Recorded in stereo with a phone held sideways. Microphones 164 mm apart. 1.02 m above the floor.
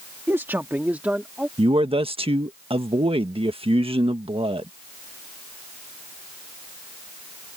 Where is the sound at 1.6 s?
30° right (ahead or behind).